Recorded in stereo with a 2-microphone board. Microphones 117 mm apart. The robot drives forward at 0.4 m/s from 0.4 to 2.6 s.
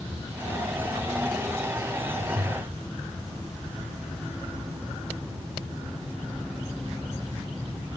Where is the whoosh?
70° right (ahead or behind), 9 m.